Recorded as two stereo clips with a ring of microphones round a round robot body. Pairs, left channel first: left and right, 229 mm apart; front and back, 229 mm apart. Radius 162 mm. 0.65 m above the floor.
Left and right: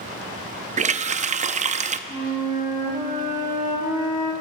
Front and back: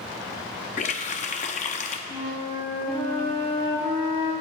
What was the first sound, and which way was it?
A running tap, 45° right.